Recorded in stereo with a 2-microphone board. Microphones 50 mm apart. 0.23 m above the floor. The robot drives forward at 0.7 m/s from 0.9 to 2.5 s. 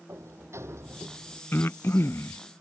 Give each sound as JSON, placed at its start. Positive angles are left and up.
{"t": 0.1, "sound": "a sliding door", "side_deg": -65}
{"t": 1.5, "sound": "breathing", "side_deg": 50}